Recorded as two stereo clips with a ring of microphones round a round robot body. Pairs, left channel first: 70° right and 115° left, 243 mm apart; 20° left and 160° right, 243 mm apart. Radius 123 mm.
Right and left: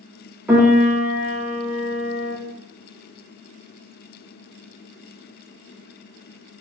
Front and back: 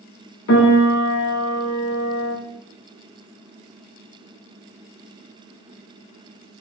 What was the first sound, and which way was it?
A piano, 30° left.